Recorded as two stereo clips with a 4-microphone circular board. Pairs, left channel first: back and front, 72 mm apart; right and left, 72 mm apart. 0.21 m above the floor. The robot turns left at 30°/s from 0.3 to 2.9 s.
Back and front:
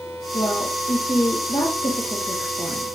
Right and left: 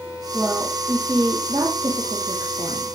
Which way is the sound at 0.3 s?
175° left.